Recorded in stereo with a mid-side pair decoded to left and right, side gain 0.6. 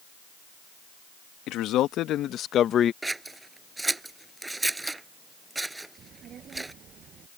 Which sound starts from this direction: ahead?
Scissors, at 3.0 s.